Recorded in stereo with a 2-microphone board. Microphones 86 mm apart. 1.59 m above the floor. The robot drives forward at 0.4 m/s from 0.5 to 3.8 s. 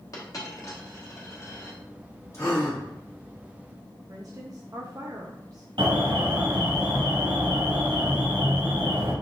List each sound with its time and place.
0.1 s a dropped coin: 40° left (ahead or behind), 1.3 m; by 1.8 s 35° left (ahead or behind), 1.5 m
2.3 s a gasp: 35° left (ahead or behind), 2 m; by 2.8 s 30° left (ahead or behind), 2 m
4.1 s a woman speaking: 45° right (ahead or behind), 0.6 m
5.8 s an alarm: 75° right (ahead or behind), 1.2 m